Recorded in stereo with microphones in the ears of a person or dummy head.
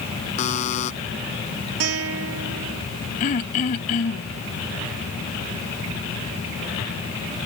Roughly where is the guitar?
Right.